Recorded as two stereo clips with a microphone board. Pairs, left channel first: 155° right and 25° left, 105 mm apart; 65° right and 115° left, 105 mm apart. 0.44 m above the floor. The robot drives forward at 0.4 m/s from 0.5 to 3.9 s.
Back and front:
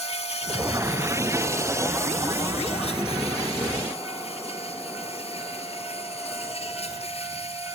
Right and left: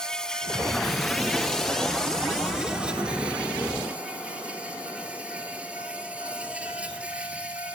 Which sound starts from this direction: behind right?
An insect, at 0.0 s.